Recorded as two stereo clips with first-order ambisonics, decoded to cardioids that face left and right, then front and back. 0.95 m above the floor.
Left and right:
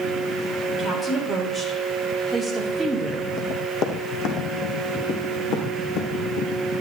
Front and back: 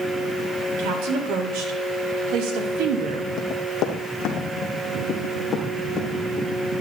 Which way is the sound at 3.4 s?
35° left.